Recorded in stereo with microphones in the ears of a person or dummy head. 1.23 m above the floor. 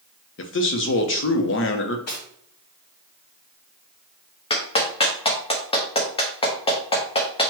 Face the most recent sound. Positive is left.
turn(degrees=25)  # may be behind; listen again after turning